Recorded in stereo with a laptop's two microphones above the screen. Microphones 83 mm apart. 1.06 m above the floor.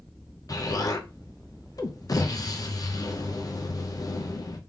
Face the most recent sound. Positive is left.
turn(degrees=45)  # may be behind; listen again after turning